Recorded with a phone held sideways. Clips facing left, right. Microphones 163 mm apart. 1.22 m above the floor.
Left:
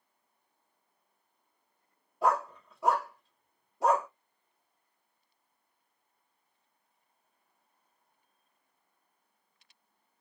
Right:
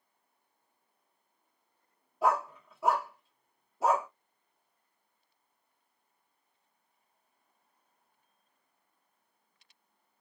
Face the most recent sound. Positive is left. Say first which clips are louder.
# even
turn(degrees=0)  # may be behind; listen again after turning